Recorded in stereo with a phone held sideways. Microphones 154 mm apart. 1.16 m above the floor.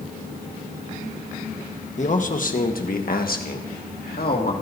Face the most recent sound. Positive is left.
turn(degrees=85)